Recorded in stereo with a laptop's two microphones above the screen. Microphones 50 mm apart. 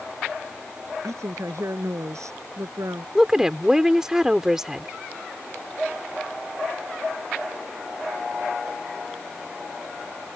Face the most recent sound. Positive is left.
turn(degrees=-10)  # may be behind; listen again after turning